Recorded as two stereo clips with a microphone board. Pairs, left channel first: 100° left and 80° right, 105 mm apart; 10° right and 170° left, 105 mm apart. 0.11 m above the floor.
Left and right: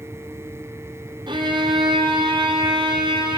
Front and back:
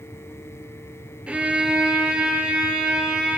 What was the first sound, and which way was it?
A violin, 110° right.